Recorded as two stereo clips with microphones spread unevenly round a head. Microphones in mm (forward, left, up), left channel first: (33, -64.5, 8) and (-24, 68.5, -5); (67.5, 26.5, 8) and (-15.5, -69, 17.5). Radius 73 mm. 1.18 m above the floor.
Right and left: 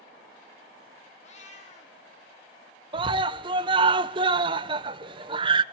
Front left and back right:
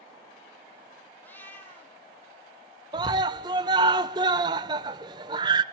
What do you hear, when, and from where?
1.2 s a cat meowing: 30° right, 3 m
2.9 s a scream: 165° left, 0.9 m